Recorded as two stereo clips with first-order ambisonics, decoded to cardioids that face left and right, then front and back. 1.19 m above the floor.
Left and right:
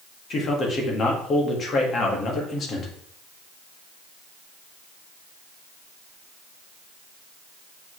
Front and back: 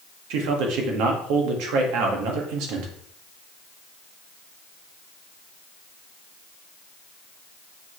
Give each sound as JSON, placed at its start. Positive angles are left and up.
{"t": 0.3, "sound": "a man speaking", "azimuth_deg": 155, "distance_m": 2.0}